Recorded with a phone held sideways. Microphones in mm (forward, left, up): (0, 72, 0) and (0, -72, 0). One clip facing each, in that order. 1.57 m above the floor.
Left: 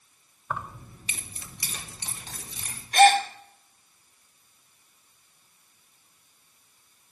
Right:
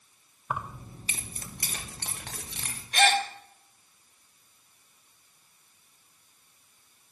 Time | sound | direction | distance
0.5 | keys jangling | 15° right (ahead or behind) | 1.0 m
2.9 | a gasp | 40° left (ahead or behind) | 1.2 m